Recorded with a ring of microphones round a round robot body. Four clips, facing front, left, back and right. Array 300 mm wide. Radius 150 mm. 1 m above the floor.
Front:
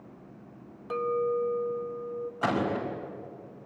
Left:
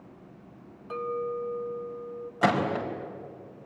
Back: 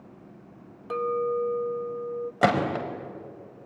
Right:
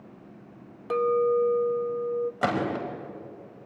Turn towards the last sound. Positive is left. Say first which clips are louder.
# left 6 dB, back 5 dB
turn(degrees=180)